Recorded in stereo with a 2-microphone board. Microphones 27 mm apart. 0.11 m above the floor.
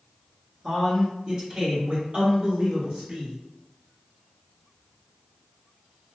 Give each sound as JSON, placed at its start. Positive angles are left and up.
{"t": 0.6, "sound": "a man speaking", "side_deg": 0, "distance_m": 1.5}